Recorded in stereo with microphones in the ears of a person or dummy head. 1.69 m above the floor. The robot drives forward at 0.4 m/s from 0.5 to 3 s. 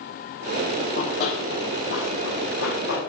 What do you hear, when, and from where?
0.8 s running footsteps: 45° left (ahead or behind), 3 m; by 3.0 s 55° left (ahead or behind), 4.5 m